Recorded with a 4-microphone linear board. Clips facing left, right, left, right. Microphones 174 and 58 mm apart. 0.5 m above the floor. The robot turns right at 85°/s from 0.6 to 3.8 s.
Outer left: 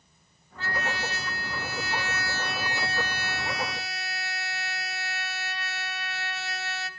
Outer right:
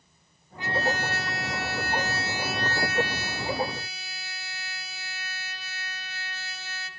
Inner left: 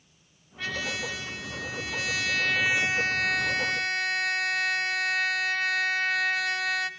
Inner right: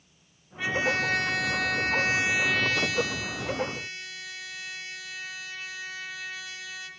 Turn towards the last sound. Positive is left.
turn(degrees=105)